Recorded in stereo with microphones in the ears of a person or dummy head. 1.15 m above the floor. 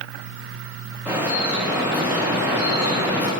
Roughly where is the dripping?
Centre.